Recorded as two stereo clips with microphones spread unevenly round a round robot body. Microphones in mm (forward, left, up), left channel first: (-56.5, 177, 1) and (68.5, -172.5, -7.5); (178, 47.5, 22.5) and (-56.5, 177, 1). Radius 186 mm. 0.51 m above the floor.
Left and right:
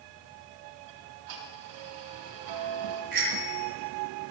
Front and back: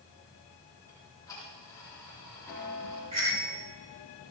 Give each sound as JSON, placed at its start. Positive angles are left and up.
{"t": 0.9, "sound": "ticking", "azimuth_deg": -110, "distance_m": 6.0}
{"t": 3.1, "sound": "a bicycle bell", "azimuth_deg": -135, "distance_m": 7.5}